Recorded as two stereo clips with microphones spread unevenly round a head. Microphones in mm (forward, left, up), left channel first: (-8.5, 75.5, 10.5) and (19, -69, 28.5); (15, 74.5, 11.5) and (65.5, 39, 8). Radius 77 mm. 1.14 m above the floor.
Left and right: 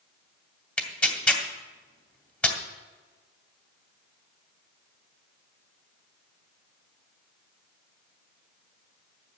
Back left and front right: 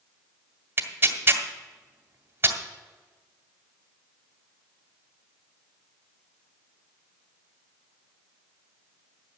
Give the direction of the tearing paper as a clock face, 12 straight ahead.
11 o'clock.